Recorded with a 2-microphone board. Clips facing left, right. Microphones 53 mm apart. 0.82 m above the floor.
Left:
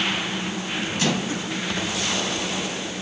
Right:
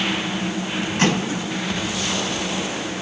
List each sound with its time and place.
1.0 s a microwave: 40° right (ahead or behind), 9.5 m